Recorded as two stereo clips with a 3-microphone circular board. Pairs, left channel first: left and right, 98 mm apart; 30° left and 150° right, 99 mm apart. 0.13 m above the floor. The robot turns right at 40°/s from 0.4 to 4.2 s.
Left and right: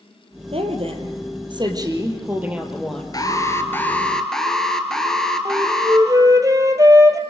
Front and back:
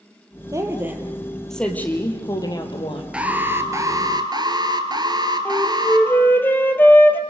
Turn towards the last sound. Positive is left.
turn(degrees=-40)